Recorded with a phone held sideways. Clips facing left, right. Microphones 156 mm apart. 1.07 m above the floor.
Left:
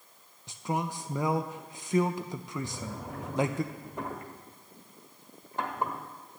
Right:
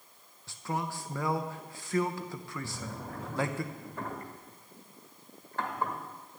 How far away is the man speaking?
About 0.6 m.